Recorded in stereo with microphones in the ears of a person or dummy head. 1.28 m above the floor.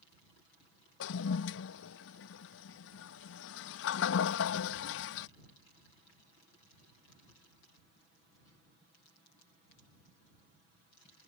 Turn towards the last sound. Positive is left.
turn(degrees=70)  # may be behind; listen again after turning